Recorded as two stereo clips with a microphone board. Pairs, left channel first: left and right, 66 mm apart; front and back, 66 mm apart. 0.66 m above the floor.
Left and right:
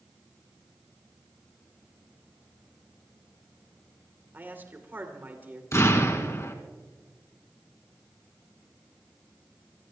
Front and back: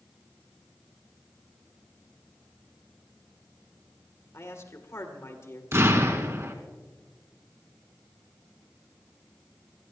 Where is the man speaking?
35° right, 2 m.